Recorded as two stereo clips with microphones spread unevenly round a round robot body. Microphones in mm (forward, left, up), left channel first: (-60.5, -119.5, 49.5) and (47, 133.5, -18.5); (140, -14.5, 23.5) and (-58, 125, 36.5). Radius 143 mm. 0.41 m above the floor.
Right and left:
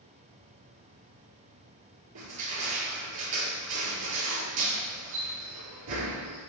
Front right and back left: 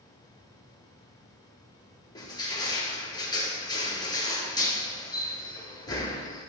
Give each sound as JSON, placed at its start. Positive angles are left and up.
{"t": 2.1, "sound": "crushing", "azimuth_deg": 40, "distance_m": 4.0}